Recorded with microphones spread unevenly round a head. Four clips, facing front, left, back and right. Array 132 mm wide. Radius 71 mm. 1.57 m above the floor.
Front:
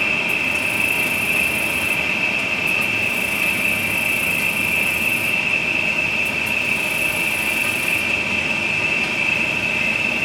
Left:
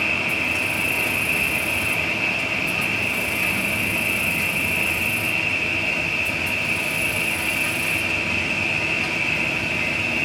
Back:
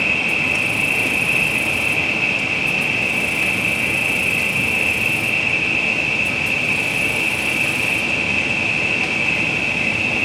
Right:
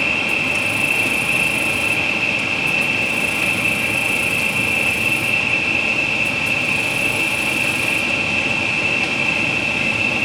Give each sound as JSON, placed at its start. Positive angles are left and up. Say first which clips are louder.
{"t": 0.0, "sound": "an insect", "louder": "right 3 dB, back 1 dB", "azimuth_deg": -145, "distance_m": 1.7}